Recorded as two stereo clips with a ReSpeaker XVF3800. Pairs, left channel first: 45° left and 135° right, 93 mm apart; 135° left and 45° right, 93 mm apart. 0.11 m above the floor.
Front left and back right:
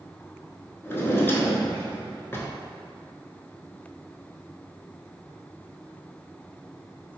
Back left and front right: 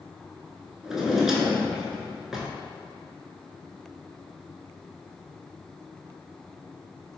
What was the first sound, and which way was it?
A drawer, 35° left.